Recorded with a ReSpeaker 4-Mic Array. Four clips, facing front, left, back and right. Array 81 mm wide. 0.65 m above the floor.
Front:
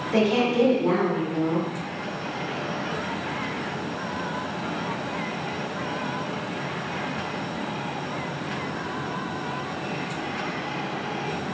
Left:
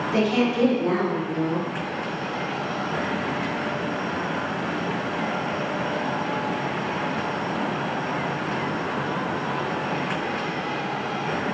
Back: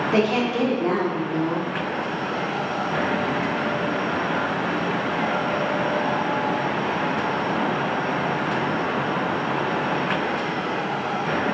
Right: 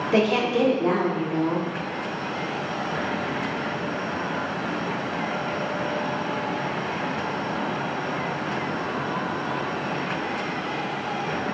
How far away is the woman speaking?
About 1.2 m.